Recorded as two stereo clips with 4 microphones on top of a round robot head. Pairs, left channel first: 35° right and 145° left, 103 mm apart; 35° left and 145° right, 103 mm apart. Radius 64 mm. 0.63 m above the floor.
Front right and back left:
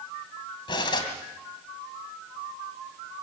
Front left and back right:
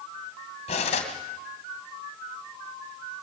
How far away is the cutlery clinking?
About 3 m.